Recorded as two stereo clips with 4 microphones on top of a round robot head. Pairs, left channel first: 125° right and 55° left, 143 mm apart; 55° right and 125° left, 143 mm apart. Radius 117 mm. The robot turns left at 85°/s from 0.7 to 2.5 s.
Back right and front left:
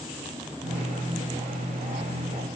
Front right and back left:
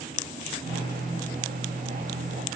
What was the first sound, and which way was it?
Only background noise.